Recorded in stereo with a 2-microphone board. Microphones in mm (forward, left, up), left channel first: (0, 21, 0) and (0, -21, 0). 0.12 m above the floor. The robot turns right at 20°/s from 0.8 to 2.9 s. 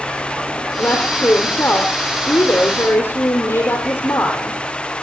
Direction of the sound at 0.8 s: 55° left.